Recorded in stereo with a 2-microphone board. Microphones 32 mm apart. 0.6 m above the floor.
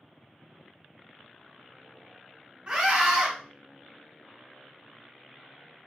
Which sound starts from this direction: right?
A scream, at 2.7 s.